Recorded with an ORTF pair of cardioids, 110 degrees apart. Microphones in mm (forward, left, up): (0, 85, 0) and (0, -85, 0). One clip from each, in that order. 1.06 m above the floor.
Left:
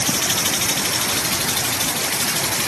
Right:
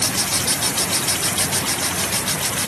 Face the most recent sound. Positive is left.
No sound to turn to.